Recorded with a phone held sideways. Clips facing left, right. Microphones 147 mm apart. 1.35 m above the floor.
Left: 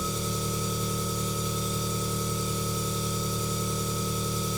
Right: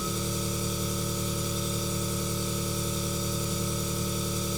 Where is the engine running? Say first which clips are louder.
Even; centre (ahead or behind), 1.9 m.